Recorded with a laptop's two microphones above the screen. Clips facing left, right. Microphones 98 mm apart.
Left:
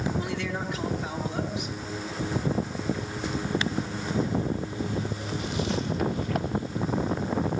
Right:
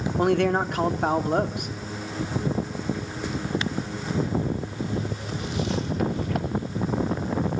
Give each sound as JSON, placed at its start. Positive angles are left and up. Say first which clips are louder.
{"t": 0.2, "sound": "a man speaking", "louder": "right 10 dB", "side_deg": -55, "distance_m": 2.5}